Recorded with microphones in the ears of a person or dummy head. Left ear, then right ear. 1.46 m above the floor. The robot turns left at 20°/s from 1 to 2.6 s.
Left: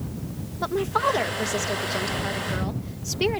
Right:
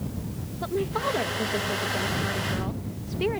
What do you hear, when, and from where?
0.6 s a woman speaking: 130° left; by 3.4 s 95° left